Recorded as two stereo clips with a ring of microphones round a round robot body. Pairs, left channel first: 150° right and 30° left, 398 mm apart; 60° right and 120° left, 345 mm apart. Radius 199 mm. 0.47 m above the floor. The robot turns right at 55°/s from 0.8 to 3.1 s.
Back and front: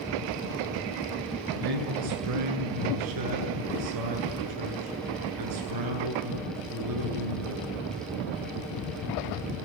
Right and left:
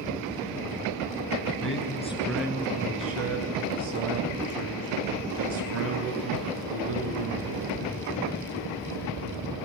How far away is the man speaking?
About 8.5 m.